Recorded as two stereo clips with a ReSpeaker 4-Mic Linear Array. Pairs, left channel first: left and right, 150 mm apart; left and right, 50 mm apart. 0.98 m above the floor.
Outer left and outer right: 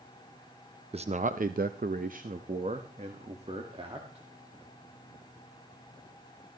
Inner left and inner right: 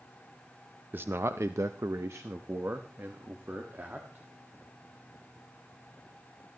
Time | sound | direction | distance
0.9 | a man speaking | 40° right (ahead or behind) | 0.6 m